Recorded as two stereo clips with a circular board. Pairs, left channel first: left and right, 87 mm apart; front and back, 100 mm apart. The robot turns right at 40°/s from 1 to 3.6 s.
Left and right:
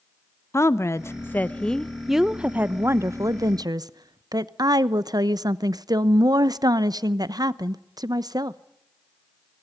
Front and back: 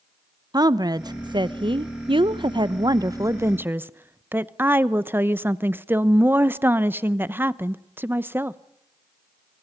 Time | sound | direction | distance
0.5 | a woman speaking | 140° left | 0.9 m